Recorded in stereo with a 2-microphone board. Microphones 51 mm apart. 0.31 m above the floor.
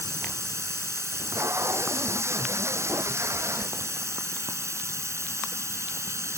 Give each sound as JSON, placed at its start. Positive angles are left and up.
{"t": 0.0, "sound": "running water", "side_deg": -70}
{"t": 1.1, "sound": "tape being pulled", "side_deg": -65}